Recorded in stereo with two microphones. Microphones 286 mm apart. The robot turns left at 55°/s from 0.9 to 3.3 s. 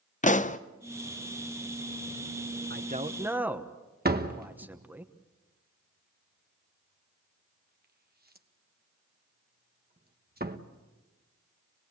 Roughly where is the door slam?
Right.